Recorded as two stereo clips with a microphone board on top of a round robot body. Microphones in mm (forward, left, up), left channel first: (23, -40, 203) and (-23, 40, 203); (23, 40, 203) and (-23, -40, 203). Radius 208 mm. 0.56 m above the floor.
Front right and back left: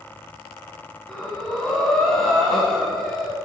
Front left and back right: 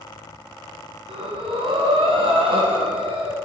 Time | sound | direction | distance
1.1 | breathing | 145° right | 1.3 m